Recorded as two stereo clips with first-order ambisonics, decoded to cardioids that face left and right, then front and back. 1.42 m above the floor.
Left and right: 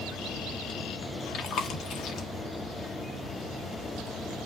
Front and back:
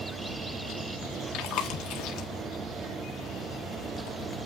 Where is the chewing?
35° left, 1.7 m.